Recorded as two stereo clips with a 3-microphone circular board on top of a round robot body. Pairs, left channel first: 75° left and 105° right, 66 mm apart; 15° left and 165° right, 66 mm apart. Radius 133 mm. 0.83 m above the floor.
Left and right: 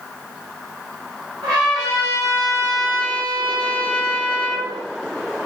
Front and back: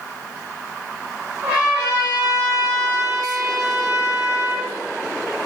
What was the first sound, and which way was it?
A trumpet, 110° right.